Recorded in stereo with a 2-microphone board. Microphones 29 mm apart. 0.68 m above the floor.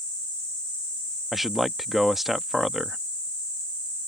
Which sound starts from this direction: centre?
A man speaking, at 1.3 s.